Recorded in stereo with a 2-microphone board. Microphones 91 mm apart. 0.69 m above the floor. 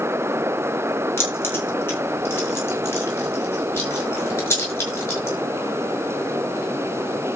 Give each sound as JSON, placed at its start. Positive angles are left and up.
{"t": 1.2, "sound": "keys jangling", "side_deg": 25, "distance_m": 4.5}